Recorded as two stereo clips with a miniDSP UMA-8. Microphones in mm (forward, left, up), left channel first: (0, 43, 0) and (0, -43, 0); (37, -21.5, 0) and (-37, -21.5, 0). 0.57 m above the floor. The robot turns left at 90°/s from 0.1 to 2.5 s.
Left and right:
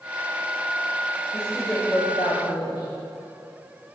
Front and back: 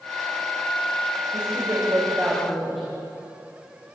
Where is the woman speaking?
160° right, 3.5 m; by 3.0 s 95° left, 3.5 m.